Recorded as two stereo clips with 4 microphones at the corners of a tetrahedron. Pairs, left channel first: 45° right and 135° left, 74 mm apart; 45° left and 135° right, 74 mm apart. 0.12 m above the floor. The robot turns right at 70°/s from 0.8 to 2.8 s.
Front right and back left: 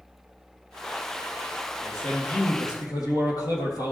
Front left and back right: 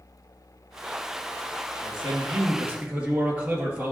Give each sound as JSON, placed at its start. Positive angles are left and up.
{"t": 1.8, "sound": "a man speaking", "azimuth_deg": -130, "distance_m": 3.0}